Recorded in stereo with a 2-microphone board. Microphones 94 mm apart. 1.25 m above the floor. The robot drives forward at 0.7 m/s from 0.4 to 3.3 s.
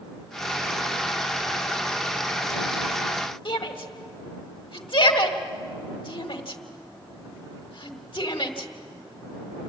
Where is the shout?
60° left (ahead or behind), 1.7 m.